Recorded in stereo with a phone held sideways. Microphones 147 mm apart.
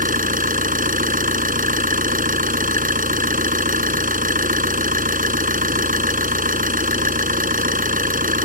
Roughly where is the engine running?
Right.